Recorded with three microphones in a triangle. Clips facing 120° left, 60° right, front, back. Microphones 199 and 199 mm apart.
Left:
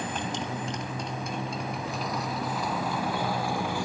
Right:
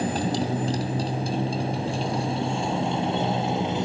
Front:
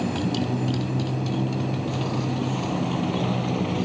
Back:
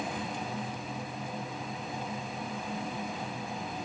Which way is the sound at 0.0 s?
5° right.